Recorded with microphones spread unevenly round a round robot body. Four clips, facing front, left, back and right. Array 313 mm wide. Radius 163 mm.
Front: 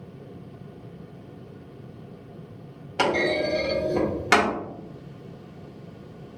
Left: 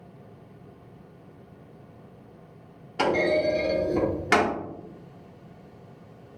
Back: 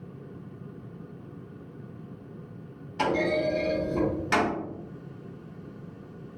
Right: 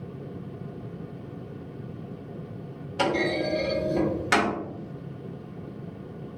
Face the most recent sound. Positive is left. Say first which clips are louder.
# left 3 dB, front 2 dB
turn(degrees=15)